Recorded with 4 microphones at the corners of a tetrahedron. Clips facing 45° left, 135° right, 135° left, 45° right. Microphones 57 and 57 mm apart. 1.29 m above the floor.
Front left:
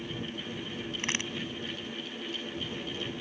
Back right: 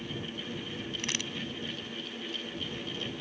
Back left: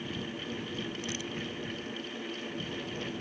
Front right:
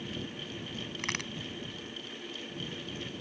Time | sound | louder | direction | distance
1.0 | a crack | front left 4 dB, front right 1 dB | 15° right | ?